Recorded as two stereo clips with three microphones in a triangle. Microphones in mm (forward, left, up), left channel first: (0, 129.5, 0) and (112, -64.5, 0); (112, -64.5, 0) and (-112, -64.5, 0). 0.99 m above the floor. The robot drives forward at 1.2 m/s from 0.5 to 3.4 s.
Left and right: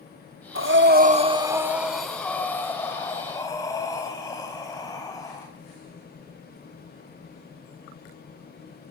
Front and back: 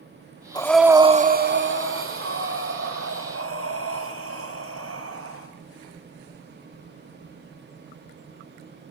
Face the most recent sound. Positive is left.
turn(degrees=-165)